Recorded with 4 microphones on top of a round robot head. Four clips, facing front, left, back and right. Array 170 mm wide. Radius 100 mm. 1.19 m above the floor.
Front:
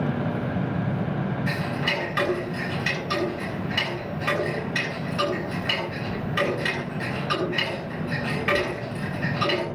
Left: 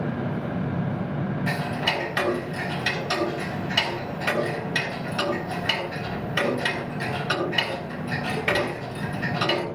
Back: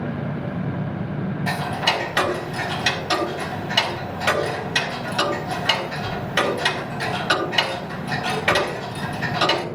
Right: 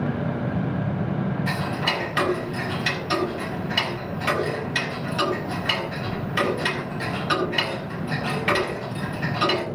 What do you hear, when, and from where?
1.5 s ticking: straight behind, 4.5 m